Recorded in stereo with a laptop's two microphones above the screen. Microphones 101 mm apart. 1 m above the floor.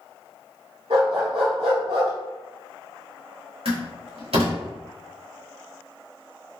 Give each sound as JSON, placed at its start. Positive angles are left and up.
{"t": 0.9, "sound": "a dog barking", "side_deg": -75, "distance_m": 1.5}
{"t": 3.6, "sound": "a door slam", "side_deg": -70, "distance_m": 1.2}